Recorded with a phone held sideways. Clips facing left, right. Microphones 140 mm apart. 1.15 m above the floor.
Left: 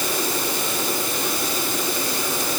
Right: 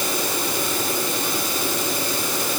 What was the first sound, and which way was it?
Only background noise.